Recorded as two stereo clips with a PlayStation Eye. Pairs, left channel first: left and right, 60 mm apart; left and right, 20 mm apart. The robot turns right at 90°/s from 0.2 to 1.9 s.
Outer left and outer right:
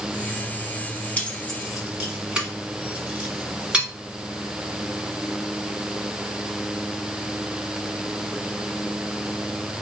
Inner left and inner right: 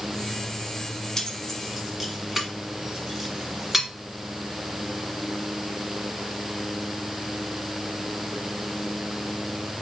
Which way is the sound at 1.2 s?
25° left (ahead or behind).